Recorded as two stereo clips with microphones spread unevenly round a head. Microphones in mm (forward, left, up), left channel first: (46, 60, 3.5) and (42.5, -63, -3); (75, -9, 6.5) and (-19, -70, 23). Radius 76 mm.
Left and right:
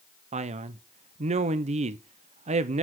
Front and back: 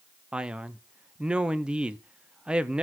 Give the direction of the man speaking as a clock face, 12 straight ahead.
2 o'clock.